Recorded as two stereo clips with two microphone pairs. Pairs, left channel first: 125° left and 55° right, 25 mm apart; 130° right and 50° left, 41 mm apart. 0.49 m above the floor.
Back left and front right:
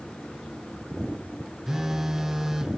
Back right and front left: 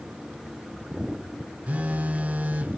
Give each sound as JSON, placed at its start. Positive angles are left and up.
{"t": 1.7, "sound": "a phone buzzing", "azimuth_deg": 20, "distance_m": 0.9}